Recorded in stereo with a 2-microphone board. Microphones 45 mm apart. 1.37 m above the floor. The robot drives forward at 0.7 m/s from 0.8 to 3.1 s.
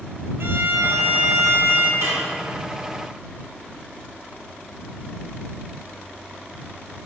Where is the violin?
60° right (ahead or behind), 0.7 m; by 1.9 s 50° right (ahead or behind), 0.8 m.